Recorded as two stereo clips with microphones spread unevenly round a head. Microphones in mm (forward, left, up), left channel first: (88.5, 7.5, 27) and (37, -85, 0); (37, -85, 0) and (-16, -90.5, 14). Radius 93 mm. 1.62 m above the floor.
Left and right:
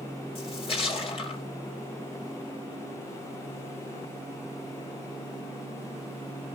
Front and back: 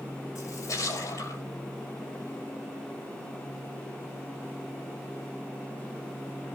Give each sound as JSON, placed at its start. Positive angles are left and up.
{"t": 0.3, "sound": "a splash", "azimuth_deg": 45, "distance_m": 2.5}